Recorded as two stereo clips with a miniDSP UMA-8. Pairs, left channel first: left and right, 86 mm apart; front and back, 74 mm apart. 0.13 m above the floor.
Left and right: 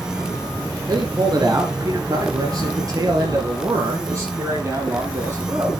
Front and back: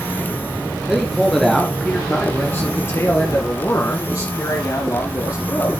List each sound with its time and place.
0.9 s a man speaking: 100° right, 2 m; by 5.7 s 30° right, 5.5 m